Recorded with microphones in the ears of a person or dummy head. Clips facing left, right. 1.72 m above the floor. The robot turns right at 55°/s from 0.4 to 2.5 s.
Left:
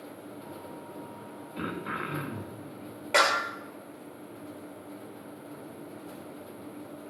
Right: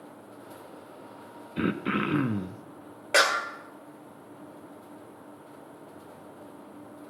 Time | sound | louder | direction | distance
1.6 | throat clearing | right 8 dB | 150° right | 0.6 m
3.1 | a clap | right 1 dB | 5° right (ahead or behind) | 1.2 m